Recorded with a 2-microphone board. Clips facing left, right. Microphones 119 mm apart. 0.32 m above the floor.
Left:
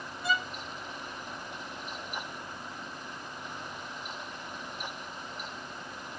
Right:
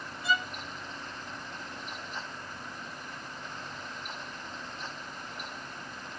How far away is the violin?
About 1.8 m.